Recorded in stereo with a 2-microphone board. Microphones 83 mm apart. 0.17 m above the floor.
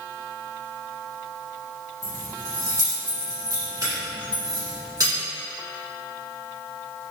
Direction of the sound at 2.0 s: 45° right (ahead or behind).